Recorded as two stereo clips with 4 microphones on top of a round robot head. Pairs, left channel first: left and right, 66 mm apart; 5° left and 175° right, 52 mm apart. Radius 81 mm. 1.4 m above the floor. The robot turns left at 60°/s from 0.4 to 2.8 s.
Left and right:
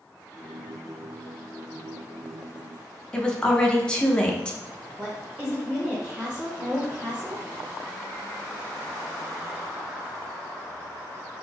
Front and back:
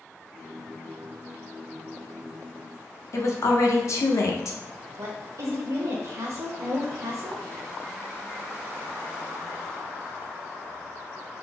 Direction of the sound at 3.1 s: 15° left.